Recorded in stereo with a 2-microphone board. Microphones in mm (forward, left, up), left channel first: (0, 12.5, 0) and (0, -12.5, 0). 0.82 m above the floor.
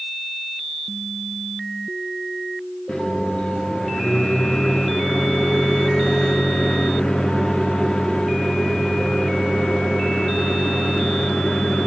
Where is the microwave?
35° left (ahead or behind), 1.0 m.